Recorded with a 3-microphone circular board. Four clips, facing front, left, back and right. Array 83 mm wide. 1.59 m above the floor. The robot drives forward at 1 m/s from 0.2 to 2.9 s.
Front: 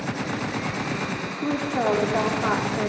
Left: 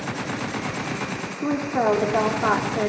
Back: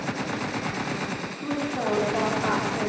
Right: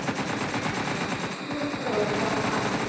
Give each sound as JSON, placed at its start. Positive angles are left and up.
{"t": 1.4, "sound": "a woman speaking", "azimuth_deg": 65, "distance_m": 4.5}